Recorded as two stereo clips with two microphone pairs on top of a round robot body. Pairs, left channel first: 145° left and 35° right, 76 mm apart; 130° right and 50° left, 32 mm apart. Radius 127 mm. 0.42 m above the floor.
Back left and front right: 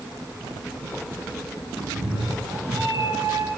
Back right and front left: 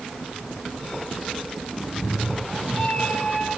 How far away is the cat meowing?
About 3.5 m.